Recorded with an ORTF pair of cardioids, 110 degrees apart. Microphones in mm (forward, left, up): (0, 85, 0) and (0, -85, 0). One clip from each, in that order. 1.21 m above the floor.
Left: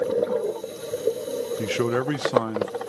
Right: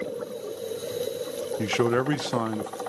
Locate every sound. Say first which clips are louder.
1.6 s a man speaking: right 2 dB; 5° right, 0.7 m